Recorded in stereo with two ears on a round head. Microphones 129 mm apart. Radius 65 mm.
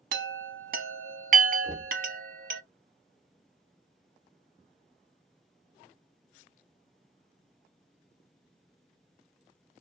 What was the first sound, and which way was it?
A chime, 65° right (ahead or behind).